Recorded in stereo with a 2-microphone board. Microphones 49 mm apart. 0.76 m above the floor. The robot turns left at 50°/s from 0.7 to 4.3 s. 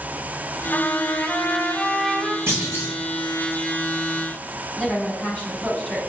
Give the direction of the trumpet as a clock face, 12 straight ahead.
10 o'clock.